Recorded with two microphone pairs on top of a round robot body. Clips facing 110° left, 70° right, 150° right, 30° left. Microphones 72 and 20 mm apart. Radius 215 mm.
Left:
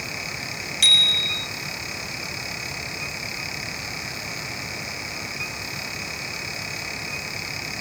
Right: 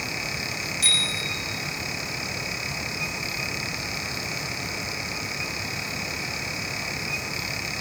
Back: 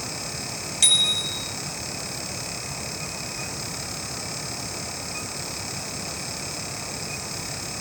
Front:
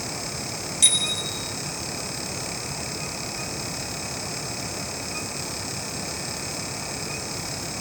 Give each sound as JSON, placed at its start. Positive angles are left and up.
{"t": 0.8, "sound": "a bicycle bell", "azimuth_deg": 135, "distance_m": 4.0}